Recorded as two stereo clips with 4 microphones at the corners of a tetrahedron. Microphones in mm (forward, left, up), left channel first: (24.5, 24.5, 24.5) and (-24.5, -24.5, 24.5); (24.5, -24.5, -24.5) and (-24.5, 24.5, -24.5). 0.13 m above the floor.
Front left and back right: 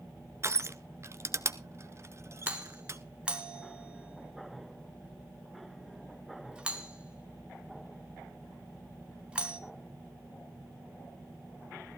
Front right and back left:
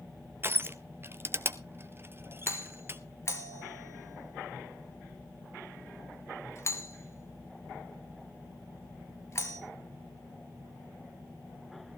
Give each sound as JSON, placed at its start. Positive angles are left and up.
{"t": 0.4, "sound": "crushing", "azimuth_deg": -175, "distance_m": 0.9}
{"t": 2.5, "sound": "a doorbell", "azimuth_deg": -65, "distance_m": 2.5}